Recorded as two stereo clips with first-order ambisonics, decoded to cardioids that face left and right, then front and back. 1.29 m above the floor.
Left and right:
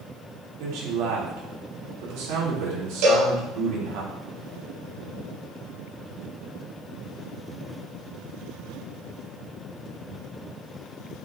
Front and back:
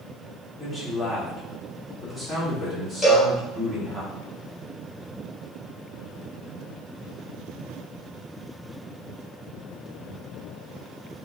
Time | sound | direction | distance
0.6 | a man speaking | 85° right | 3.5 m
3.0 | a cowbell | 75° right | 3 m